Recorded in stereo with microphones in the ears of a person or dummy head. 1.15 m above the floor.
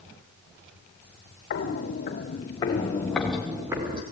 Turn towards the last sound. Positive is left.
turn(degrees=-25)  # may be behind; listen again after turning